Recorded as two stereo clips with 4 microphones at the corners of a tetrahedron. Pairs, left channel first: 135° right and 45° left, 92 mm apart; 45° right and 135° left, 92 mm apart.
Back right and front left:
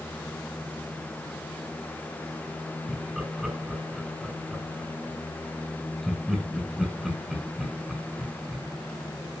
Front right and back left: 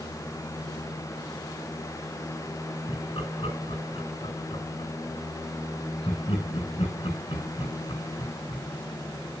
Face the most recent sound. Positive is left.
turn(degrees=-45)